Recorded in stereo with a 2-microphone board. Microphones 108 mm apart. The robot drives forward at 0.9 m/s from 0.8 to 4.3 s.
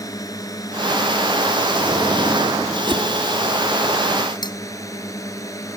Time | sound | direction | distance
0.0 | a drone | 30° left (ahead or behind) | ?
2.9 | a whoosh | 50° right (ahead or behind) | ?
4.4 | cutlery clinking | 40° left (ahead or behind) | ?